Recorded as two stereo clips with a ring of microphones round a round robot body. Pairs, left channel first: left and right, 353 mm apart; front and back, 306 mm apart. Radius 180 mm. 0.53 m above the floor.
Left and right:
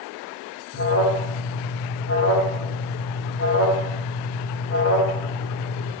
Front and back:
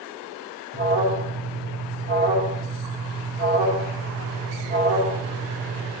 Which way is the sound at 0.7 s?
130° left.